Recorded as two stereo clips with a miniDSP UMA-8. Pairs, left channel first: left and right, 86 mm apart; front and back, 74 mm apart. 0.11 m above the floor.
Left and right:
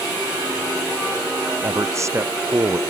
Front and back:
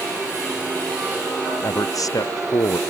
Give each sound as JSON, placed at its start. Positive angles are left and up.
{"t": 1.6, "sound": "a man speaking", "azimuth_deg": -35}